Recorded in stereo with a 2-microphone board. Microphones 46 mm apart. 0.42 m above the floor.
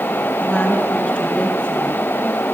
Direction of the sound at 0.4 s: 25° left (ahead or behind).